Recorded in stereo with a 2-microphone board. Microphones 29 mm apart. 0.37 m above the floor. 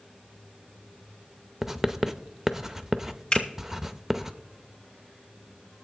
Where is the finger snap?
25° left (ahead or behind), 3.5 m.